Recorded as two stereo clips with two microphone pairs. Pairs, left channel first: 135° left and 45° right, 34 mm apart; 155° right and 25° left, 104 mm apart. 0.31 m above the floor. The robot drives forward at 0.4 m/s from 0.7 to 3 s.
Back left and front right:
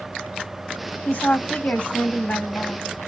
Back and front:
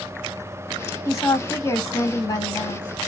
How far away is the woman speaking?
About 1.4 m.